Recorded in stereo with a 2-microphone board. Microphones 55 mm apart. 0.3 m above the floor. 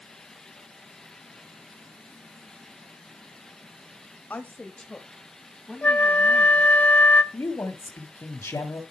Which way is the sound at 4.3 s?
35° left (ahead or behind).